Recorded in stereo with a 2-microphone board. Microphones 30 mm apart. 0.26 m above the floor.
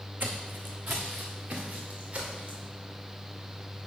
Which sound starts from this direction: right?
Footsteps, at 0.2 s.